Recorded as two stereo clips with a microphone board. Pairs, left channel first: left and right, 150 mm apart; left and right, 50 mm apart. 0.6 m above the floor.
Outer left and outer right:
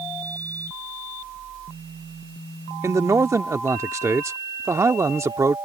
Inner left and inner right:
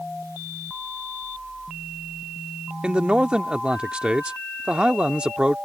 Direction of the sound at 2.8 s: 20° right (ahead or behind).